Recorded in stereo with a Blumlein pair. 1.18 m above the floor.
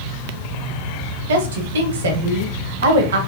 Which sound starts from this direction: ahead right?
A woman speaking, at 1.3 s.